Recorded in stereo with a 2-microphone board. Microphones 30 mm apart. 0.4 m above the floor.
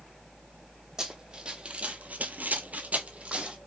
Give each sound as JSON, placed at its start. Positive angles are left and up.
{"t": 1.0, "sound": "running footsteps", "side_deg": -25, "distance_m": 1.2}